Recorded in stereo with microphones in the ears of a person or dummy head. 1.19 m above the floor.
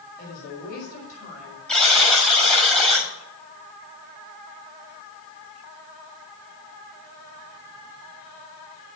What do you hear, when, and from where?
0.2 s a woman speaking: 50° left (ahead or behind), 5.5 m; by 1.6 s 40° left (ahead or behind), 6 m
1.7 s a buzzer: 5° left (ahead or behind), 6.5 m